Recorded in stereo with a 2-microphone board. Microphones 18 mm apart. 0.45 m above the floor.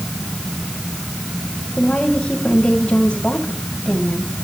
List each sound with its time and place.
1.8 s a woman speaking: 65° left (ahead or behind), 2.5 m